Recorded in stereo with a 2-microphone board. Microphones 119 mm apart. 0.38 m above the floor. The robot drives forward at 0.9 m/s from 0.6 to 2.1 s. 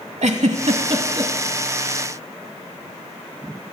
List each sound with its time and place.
0.2 s a giggle: 70° right (ahead or behind), 0.6 m; by 1.3 s 35° right (ahead or behind), 1.0 m